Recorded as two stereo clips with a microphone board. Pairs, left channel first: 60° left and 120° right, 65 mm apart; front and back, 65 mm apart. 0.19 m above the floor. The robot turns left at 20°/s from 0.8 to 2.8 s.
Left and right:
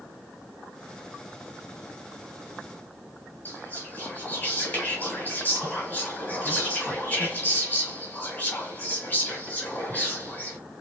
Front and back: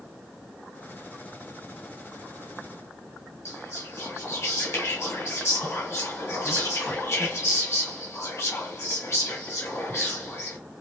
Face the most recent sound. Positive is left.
turn(degrees=15)